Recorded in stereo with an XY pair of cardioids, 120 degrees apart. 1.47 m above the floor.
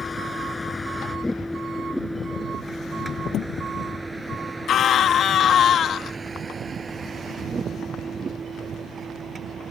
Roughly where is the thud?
Ahead left.